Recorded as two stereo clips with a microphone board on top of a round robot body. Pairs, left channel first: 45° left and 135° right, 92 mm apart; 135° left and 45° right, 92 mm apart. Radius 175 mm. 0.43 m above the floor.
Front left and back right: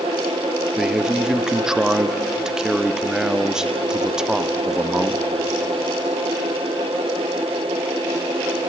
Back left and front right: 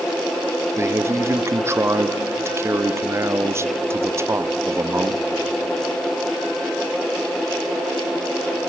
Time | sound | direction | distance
0.8 | a man speaking | 60° right | 1.0 m